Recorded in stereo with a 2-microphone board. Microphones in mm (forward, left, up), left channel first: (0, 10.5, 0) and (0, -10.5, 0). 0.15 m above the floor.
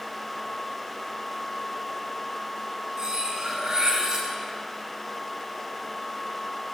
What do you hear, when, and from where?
3.0 s cutlery clinking: 40° right (ahead or behind), 1.5 m